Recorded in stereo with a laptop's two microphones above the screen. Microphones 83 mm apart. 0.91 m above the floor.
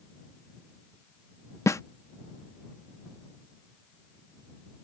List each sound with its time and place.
1.7 s a snare drum: 40° left (ahead or behind)